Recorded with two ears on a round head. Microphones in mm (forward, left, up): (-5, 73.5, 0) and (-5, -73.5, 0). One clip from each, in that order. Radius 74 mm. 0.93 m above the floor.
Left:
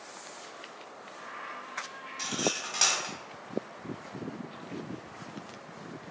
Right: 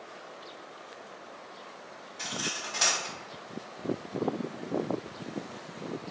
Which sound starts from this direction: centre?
Cutlery clinking, at 2.2 s.